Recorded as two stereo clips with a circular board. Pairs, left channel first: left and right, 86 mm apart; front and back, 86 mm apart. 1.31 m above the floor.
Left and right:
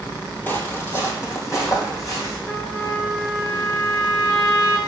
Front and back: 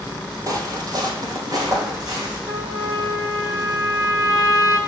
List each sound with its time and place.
0.5 s footsteps: 150° left, 2.0 m; by 2.4 s 140° left, 4 m
2.5 s a trumpet: 140° left, 2.5 m